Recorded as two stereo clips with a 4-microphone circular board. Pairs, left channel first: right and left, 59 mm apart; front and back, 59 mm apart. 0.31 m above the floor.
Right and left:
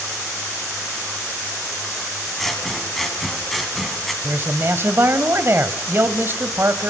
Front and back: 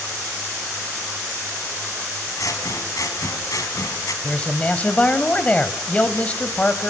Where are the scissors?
Straight ahead, 2.5 m.